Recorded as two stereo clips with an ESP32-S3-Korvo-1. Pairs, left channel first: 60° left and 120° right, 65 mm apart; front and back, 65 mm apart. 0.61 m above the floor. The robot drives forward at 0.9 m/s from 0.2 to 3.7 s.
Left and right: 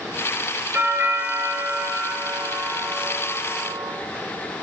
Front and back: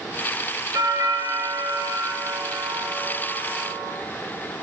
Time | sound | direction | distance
0.7 | a doorbell | 175° right | 4 m